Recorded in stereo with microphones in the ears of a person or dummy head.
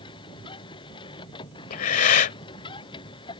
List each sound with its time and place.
0.0 s a machine running: 25° left (ahead or behind)
1.7 s breathing: 45° left (ahead or behind)